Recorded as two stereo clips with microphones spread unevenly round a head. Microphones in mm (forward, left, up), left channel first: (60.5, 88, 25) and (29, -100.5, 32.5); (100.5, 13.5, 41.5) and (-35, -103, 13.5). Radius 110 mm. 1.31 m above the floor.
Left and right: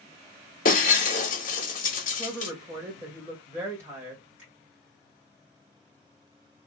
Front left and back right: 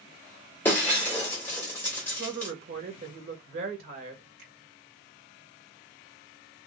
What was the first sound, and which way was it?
Breaking glass, 105° left.